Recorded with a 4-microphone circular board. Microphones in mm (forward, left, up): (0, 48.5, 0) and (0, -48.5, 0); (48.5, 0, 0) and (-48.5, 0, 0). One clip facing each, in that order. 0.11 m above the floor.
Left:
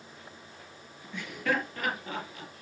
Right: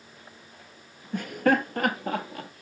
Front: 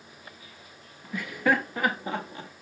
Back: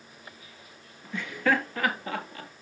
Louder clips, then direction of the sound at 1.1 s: Right 8 dB, front 1 dB; 80° right.